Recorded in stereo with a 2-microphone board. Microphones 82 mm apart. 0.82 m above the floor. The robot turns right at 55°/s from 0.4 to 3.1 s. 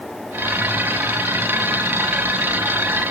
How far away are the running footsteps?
I don't hear running footsteps.